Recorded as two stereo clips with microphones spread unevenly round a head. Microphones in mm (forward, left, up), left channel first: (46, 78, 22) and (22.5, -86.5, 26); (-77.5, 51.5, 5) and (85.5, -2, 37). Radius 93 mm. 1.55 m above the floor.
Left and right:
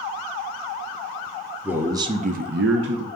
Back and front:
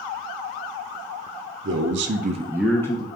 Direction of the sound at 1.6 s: 15° right.